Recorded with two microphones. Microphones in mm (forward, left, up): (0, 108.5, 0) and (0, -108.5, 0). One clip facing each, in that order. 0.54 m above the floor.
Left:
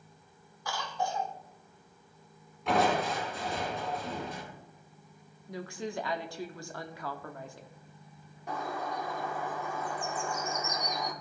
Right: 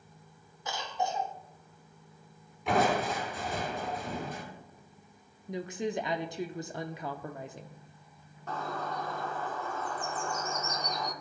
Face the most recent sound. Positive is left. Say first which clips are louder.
# even
turn(degrees=15)  # may be behind; listen again after turning